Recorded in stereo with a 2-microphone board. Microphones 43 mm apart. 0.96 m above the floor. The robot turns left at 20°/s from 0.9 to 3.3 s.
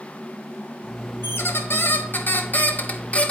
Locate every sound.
1.2 s a squeak: 75° left, 0.7 m; by 3.3 s 30° left, 0.7 m